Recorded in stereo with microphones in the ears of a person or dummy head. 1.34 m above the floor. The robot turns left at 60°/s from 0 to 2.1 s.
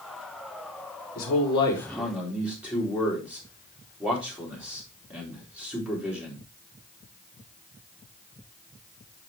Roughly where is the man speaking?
Ahead left.